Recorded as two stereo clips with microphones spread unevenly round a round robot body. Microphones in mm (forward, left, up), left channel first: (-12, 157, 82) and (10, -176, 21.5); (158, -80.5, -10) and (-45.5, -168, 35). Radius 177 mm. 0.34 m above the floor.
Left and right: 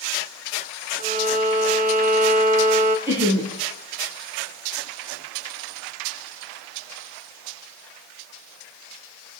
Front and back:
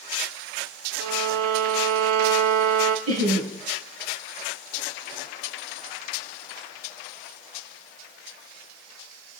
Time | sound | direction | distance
1.0 | a violin | 155° right | 0.9 m
3.1 | laughter | 165° right | 4 m